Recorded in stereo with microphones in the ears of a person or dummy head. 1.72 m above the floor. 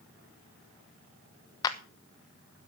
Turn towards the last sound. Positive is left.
turn(degrees=25)  # may be behind; listen again after turning